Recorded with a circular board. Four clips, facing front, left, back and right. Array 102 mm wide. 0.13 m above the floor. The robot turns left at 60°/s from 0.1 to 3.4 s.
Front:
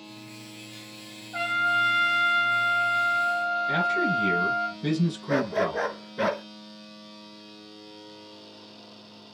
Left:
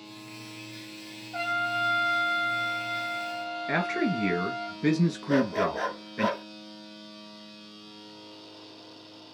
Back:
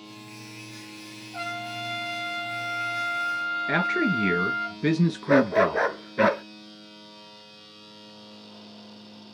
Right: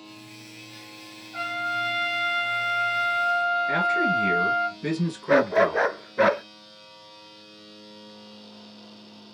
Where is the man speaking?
160° left, 1.5 m.